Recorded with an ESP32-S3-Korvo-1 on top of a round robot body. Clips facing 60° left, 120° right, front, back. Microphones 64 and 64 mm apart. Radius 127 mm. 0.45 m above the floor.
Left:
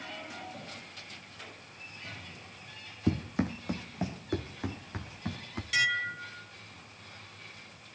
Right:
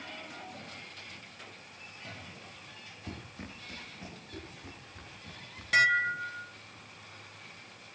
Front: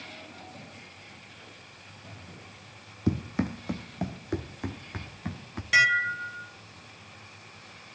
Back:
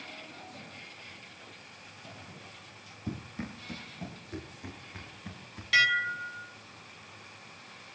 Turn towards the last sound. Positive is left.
turn(degrees=-70)